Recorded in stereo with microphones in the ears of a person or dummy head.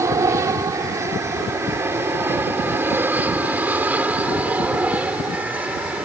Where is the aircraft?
20° right (ahead or behind); by 6.1 s 5° right (ahead or behind).